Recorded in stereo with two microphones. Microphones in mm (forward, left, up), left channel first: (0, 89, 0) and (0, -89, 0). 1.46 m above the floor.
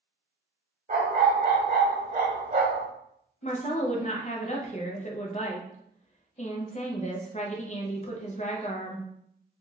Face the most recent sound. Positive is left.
turn(degrees=40)  # may be behind; listen again after turning